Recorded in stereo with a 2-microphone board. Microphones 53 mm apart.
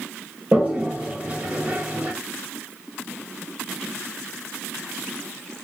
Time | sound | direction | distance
0.5 | a toilet flushing | 30° right (ahead or behind) | 0.8 m